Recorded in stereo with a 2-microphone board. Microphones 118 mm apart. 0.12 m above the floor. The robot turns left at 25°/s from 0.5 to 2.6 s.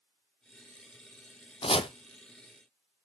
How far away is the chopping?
About 0.7 m.